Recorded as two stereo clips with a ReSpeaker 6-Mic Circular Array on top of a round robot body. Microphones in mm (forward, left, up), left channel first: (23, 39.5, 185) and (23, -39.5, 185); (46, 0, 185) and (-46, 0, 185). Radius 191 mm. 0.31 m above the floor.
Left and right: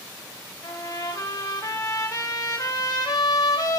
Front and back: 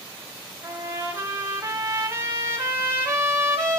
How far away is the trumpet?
About 3 m.